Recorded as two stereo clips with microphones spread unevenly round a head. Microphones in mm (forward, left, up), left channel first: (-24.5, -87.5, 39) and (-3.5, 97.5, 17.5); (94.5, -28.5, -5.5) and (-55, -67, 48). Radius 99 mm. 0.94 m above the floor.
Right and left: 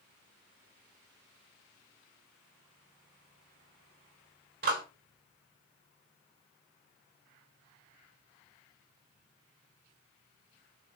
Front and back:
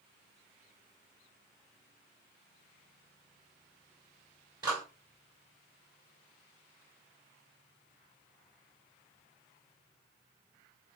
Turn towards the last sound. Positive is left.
turn(degrees=120)